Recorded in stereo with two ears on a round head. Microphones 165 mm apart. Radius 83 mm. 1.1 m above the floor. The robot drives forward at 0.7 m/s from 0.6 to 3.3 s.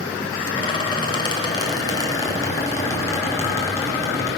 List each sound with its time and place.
0.5 s a squeak: 30° left (ahead or behind), 2.0 m; by 4.3 s 15° left (ahead or behind), 3.5 m